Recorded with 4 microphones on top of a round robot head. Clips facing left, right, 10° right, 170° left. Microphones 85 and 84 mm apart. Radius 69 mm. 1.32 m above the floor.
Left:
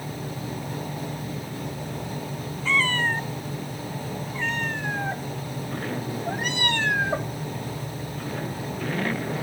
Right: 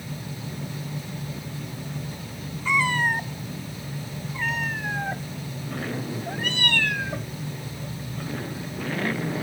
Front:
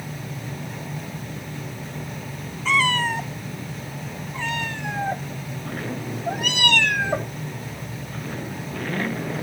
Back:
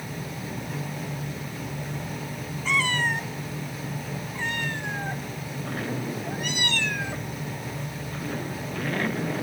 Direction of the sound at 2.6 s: 10° right.